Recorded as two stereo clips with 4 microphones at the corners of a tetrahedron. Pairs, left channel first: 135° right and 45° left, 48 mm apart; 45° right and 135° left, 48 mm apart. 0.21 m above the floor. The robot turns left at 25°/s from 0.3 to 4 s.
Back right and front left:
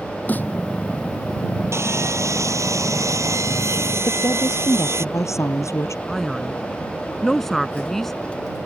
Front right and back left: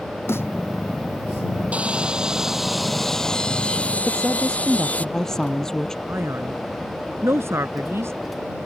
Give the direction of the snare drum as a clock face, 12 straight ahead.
3 o'clock.